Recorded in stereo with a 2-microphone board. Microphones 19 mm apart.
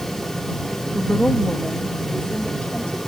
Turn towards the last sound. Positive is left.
turn(degrees=65)  # may be behind; listen again after turning